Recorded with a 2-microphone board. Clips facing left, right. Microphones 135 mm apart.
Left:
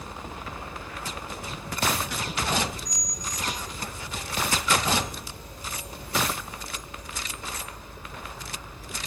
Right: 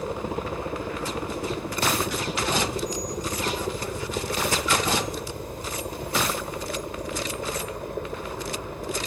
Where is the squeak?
30° right (ahead or behind).